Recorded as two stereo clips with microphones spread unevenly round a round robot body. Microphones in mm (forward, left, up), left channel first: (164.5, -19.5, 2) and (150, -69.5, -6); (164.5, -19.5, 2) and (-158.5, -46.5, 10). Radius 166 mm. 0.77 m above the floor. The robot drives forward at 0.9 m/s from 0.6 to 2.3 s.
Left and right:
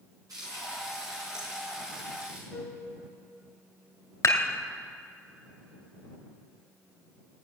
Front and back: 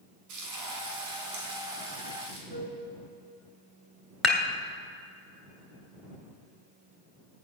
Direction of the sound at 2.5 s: 155° left.